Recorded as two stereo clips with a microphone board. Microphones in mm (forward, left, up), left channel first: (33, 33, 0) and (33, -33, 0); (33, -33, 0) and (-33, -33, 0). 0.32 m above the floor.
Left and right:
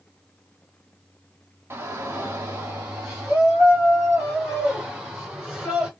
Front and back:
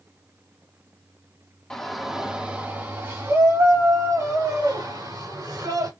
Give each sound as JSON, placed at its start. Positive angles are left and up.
{"t": 1.7, "sound": "a shout", "azimuth_deg": -75, "distance_m": 1.1}